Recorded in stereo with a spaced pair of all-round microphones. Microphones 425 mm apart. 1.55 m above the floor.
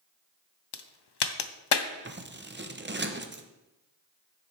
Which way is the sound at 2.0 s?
25° right (ahead or behind).